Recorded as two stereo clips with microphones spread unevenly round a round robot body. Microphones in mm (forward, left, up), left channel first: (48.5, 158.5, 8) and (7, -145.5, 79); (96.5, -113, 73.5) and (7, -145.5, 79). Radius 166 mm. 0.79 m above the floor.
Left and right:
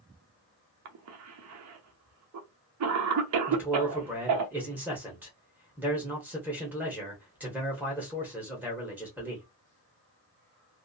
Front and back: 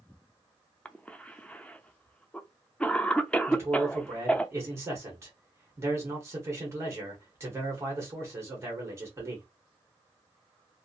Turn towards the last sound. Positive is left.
turn(degrees=160)